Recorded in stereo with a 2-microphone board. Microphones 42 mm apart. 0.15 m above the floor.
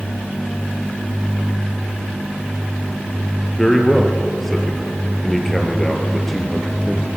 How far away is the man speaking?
About 3.5 m.